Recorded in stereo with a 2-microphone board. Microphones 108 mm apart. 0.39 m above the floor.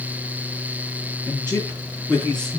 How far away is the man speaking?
About 9.5 m.